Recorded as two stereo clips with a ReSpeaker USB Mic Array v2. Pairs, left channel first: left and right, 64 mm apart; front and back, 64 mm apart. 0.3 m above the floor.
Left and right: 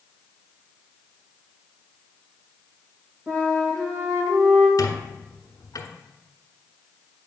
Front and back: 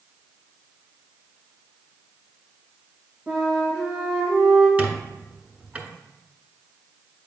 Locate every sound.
3.3 s a flute: 130° right, 3 m
4.8 s a squeak: 110° left, 1.0 m